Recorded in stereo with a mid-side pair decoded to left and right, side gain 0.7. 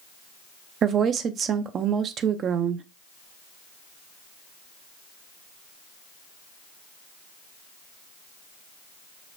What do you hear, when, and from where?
0.8 s a woman speaking: 40° right, 0.6 m